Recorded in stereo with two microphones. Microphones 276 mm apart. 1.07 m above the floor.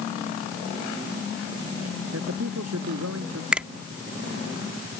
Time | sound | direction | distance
2.1 | a man speaking | 70° right (ahead or behind) | ?
3.5 | a finger snap | 5° right (ahead or behind) | ?